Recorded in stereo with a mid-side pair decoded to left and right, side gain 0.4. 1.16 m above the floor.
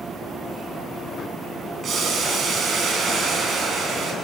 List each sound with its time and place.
1.8 s boiling: 55° right, 6.5 m